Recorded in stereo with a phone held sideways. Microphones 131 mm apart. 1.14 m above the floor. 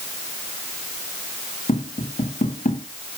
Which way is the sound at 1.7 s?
80° left.